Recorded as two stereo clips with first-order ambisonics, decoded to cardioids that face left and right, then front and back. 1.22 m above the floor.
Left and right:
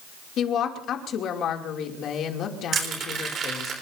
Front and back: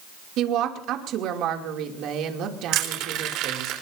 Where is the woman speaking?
140° left, 2.5 m.